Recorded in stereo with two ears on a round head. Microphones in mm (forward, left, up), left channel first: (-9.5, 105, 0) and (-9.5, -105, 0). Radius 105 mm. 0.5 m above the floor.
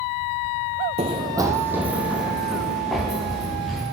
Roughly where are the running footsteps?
Right.